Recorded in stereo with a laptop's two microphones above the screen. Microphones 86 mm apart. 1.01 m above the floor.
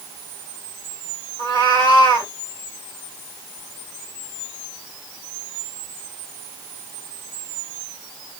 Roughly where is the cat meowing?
Left.